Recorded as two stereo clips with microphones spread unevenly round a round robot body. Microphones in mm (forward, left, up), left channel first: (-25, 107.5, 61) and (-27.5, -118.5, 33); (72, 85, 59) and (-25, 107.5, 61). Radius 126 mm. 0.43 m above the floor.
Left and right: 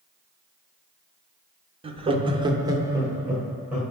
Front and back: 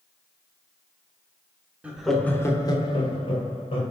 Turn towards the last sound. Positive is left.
turn(degrees=-10)